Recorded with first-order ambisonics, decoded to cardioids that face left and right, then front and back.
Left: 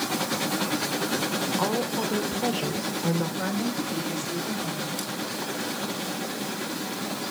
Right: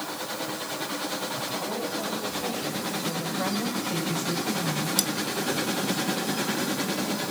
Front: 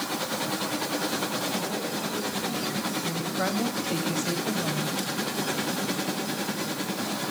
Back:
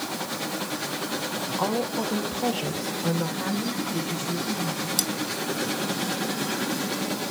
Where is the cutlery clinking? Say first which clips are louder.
Right 6 dB, back 4 dB; 140° right, 1.2 m.